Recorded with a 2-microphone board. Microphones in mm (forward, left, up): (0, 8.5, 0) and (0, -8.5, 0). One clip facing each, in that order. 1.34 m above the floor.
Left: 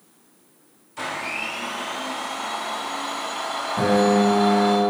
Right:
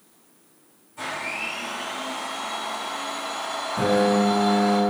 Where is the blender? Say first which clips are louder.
Left 2 dB; 75° left (ahead or behind), 1.8 m.